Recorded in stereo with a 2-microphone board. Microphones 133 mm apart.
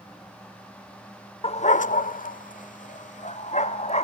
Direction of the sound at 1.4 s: 50° left (ahead or behind).